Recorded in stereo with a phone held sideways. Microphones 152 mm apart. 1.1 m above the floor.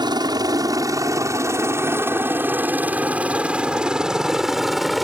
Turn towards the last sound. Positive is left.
turn(degrees=0)  # may be behind; listen again after turning